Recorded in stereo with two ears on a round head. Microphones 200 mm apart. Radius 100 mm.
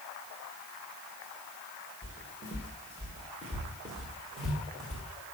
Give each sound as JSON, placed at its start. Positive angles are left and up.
{"t": 2.0, "sound": "footsteps", "side_deg": -15, "distance_m": 4.5}